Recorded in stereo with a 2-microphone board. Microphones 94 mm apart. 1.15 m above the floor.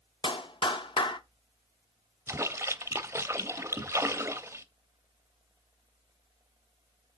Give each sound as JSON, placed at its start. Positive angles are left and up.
{"t": 0.2, "sound": "a clap", "side_deg": 60, "distance_m": 0.8}
{"t": 2.3, "sound": "a splash", "side_deg": -30, "distance_m": 0.7}